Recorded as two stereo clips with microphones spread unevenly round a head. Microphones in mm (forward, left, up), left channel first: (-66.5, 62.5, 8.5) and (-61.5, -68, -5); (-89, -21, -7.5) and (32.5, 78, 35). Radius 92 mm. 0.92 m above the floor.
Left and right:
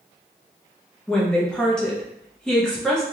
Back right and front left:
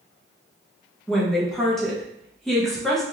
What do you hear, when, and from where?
1.1 s a woman speaking: 175° right, 0.7 m